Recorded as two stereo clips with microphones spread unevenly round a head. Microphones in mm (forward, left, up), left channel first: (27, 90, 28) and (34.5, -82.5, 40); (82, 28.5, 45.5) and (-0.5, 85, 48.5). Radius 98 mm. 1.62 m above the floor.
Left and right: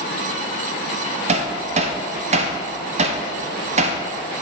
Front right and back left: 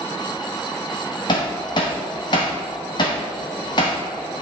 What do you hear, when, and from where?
1.3 s hammering: 75° right, 0.5 m